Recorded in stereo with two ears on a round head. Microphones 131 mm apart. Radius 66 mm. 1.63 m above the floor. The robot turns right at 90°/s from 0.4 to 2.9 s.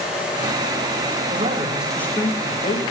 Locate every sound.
1.3 s a man speaking: 55° right, 3.5 m; by 2.8 s 85° left, 3.5 m